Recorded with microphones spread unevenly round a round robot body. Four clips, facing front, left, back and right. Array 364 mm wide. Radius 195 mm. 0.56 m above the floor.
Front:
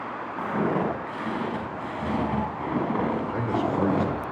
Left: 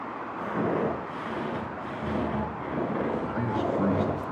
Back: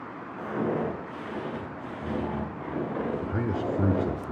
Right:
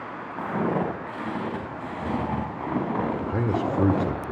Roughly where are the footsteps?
Ahead right.